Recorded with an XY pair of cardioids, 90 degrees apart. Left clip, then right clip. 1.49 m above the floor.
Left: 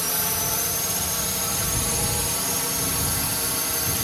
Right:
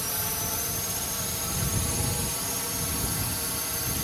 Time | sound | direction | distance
0.0 | a drone | 40° left | ?